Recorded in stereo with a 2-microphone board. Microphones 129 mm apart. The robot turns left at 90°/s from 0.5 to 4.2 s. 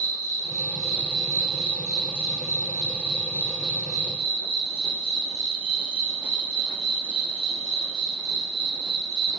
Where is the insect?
100° left, 1.4 m; by 9.4 s 125° left, 1.4 m.